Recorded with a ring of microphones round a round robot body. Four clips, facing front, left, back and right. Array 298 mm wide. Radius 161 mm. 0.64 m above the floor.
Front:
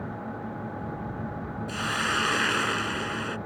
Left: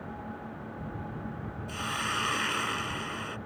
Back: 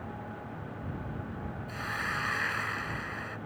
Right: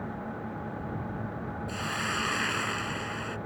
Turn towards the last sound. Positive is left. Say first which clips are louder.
# left 1 dB, front 7 dB
turn(degrees=5)